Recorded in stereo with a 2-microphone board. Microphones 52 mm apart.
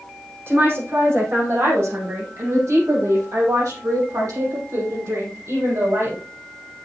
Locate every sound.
0.5 s a woman speaking: 45° right (ahead or behind), 6.5 m; by 6.2 s 65° right (ahead or behind), 6.5 m